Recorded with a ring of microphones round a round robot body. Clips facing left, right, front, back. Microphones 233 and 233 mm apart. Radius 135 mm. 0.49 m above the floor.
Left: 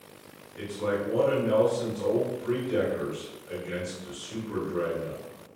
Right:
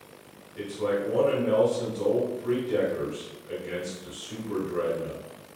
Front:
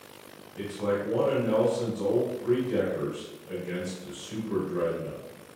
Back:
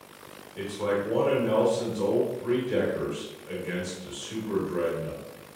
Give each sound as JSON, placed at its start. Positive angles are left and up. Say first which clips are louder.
{"t": 0.6, "sound": "a man speaking", "louder": "right 2 dB, back 1 dB", "azimuth_deg": -140, "distance_m": 1.2}